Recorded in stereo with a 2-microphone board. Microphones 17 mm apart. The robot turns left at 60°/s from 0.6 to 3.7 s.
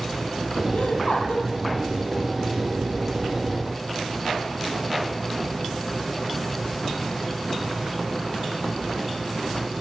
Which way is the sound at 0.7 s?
125° left.